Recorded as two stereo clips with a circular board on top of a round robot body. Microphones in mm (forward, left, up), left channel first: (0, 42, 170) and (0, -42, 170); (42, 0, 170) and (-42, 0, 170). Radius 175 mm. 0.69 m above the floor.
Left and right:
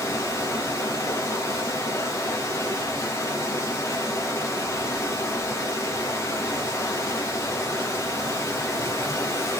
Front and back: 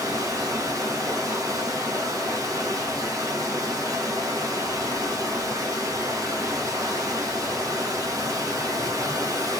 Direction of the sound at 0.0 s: 140° left.